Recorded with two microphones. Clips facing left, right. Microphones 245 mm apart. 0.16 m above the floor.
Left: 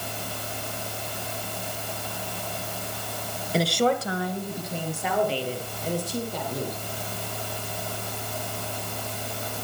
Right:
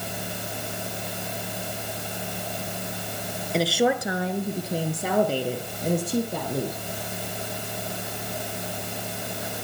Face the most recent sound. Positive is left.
turn(degrees=-65)  # may be behind; listen again after turning